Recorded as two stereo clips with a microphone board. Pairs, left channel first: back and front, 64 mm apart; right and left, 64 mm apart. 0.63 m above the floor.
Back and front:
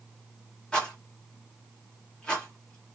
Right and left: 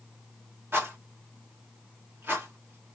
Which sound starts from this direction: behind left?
A rattle, at 0.7 s.